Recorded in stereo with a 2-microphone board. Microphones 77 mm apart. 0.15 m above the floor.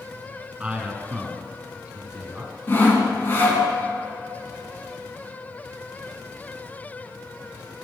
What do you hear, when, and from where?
0.6 s a man speaking: 15° right (ahead or behind), 1.6 m
2.7 s sawing: 25° left (ahead or behind), 1.8 m